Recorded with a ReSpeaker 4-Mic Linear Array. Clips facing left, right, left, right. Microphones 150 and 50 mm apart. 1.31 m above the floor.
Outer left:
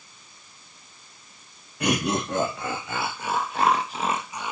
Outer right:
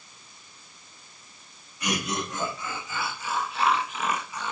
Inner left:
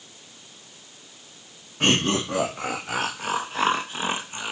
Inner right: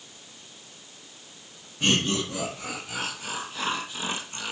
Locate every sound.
1.8 s laughter: 80° left, 2 m; by 4.5 s 15° left (ahead or behind), 1.2 m